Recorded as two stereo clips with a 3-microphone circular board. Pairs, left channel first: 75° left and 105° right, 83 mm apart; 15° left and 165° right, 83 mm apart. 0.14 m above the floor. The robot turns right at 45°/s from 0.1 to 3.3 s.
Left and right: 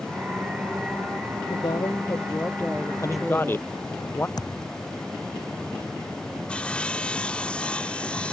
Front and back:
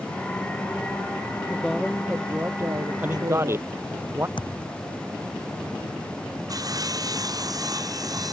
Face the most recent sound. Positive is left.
turn(degrees=150)